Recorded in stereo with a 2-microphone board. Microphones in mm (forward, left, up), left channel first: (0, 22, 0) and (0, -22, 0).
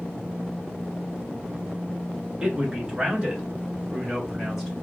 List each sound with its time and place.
2.4 s a man speaking: 15° right (ahead or behind), 1.5 m; by 4.7 s 5° right (ahead or behind), 1.6 m